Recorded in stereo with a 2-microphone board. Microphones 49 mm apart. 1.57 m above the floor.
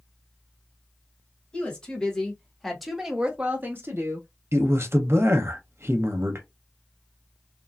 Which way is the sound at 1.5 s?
20° left (ahead or behind).